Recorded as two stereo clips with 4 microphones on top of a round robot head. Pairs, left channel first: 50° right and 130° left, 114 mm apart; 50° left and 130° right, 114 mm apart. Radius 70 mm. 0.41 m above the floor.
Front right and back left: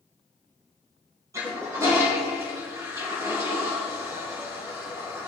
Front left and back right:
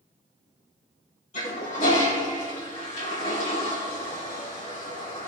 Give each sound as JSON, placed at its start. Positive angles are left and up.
{"t": 1.3, "sound": "a toilet flushing", "azimuth_deg": 65, "distance_m": 3.5}